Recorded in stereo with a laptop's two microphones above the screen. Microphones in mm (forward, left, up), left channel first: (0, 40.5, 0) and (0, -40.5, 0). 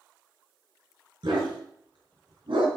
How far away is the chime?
No chime in this recording.